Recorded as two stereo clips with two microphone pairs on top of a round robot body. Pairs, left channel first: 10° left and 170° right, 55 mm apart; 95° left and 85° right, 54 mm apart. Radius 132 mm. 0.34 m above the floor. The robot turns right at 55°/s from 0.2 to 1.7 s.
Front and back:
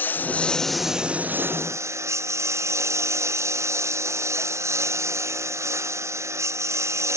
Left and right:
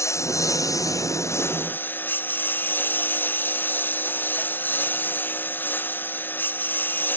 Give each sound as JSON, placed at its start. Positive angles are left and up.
{"t": 0.0, "sound": "a lawn mower", "azimuth_deg": 70}